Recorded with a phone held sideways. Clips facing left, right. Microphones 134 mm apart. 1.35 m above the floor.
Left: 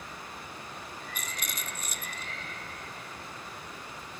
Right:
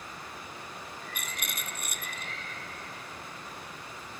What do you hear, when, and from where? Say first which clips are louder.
1.1 s a rattle: even; 60° right (ahead or behind), 0.7 m